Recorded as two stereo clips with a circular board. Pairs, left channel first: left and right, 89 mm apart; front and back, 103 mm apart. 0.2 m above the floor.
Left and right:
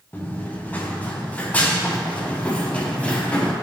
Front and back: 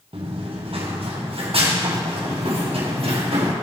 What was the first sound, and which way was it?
Running footsteps, 160° left.